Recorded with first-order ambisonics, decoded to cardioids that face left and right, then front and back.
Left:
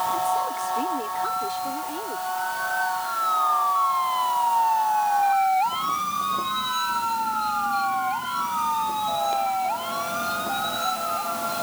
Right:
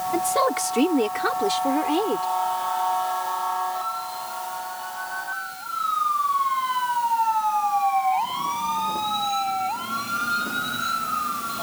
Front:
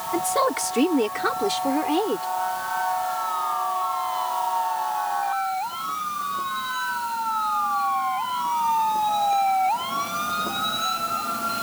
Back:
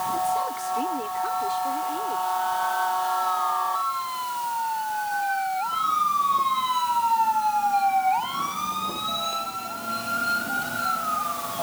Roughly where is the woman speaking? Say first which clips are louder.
Right 2 dB, front 3 dB; ahead right.